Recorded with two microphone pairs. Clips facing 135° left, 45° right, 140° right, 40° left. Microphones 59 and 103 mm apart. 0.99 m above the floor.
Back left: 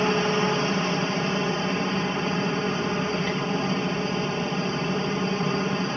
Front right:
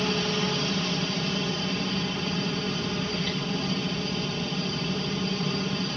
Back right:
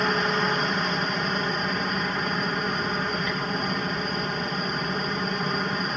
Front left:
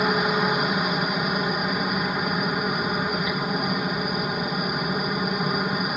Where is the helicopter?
115° left.